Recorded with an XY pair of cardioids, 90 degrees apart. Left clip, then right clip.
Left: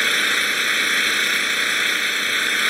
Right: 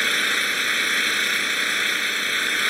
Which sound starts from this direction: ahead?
An engine running, at 0.0 s.